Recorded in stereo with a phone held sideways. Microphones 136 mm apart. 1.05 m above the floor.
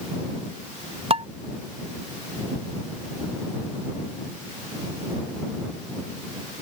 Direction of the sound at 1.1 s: 45° right (ahead or behind).